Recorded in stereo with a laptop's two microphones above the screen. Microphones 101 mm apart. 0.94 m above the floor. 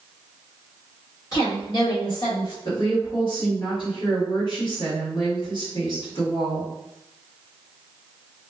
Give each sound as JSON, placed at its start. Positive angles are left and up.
{"t": 1.3, "sound": "a woman speaking", "side_deg": 40, "distance_m": 1.5}
{"t": 2.6, "sound": "a woman speaking", "side_deg": 50, "distance_m": 1.5}